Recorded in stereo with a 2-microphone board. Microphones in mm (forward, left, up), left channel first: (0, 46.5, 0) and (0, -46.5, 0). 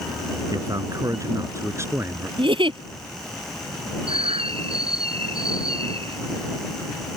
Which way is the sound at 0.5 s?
45° right (ahead or behind).